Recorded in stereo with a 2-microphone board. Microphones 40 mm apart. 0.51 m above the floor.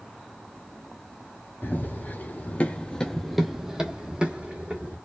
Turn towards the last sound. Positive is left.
turn(degrees=-30)  # may be behind; listen again after turning